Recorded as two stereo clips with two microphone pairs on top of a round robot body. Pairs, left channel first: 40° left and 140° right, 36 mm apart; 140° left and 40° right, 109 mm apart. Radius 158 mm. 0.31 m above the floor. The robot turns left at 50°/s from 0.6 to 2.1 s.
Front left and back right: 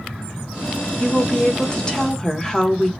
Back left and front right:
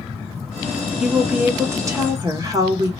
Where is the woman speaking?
45° left, 1.0 m; by 2.9 s 10° right, 1.0 m.